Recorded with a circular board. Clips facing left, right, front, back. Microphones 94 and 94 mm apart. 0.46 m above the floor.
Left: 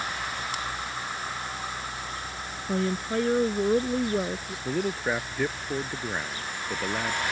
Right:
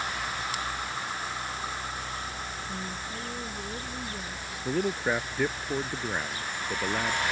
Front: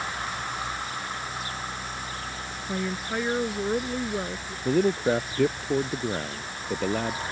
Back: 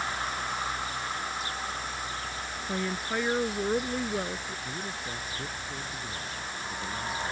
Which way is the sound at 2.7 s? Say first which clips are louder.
Left 9 dB, front 2 dB; 85° left.